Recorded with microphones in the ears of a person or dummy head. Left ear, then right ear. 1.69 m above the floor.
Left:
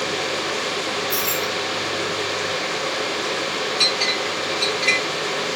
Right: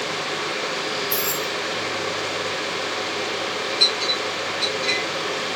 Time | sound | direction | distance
1.1 | keys jangling | 50° right (ahead or behind) | 2 m
3.8 | a clink | 35° left (ahead or behind) | 1.1 m